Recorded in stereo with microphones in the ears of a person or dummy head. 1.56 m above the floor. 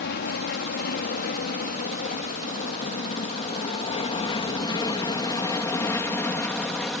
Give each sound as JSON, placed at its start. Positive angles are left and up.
{"t": 0.0, "sound": "an aircraft", "side_deg": 50}